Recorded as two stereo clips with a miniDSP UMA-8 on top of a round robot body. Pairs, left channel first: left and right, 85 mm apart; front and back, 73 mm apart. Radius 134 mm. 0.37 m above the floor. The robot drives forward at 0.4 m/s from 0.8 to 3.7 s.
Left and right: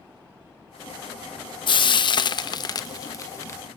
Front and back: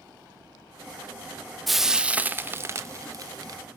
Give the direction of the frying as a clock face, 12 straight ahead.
9 o'clock.